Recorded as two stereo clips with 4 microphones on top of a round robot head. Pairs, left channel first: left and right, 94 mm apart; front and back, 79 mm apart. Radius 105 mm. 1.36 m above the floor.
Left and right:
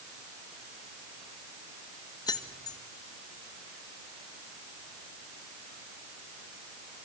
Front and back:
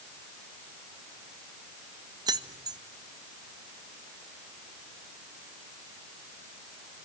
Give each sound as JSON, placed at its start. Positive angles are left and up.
{"t": 2.3, "sound": "keys jangling", "azimuth_deg": 145, "distance_m": 1.5}